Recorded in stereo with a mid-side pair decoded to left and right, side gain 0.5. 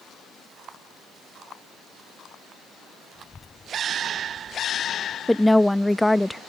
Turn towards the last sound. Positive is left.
turn(degrees=5)